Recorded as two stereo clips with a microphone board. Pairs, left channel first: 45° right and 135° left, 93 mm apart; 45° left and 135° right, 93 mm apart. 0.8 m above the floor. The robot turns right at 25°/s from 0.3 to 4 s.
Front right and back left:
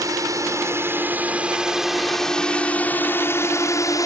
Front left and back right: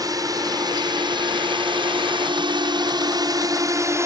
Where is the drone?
Straight behind; by 4.1 s 85° right.